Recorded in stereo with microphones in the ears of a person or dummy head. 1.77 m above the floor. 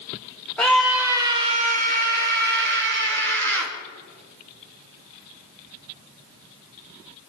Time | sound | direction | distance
0.6 | a scream | 5° left (ahead or behind) | 1.0 m